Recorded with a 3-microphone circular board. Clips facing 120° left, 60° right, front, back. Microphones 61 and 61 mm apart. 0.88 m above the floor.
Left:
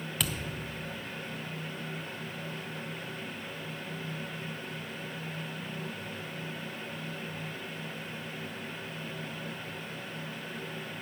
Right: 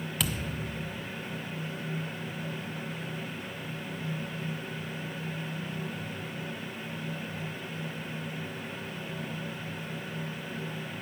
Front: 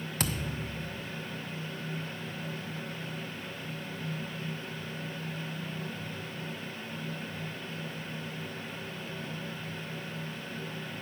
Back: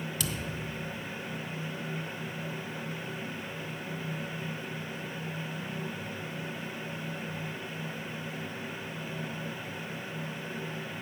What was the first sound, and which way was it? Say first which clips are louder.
A thud: right 2 dB, front 1 dB; 30° left.